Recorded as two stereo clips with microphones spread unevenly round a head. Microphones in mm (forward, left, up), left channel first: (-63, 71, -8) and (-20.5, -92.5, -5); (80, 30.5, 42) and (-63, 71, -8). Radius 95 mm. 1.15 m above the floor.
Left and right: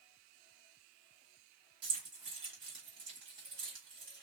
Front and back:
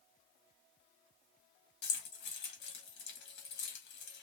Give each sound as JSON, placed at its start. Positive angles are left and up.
{"t": 1.8, "sound": "keys jangling", "azimuth_deg": -5, "distance_m": 1.1}